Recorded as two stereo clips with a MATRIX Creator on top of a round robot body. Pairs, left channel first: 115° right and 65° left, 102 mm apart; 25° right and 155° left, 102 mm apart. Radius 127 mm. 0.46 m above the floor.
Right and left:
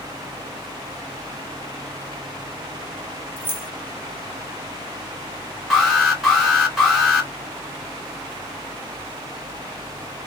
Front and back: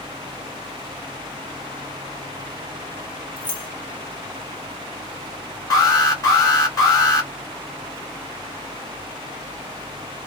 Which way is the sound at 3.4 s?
50° right.